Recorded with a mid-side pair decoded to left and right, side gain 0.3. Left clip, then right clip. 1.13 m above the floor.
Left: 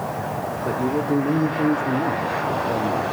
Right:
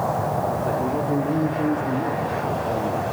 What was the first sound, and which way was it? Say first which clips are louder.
A man speaking: even; 40° left.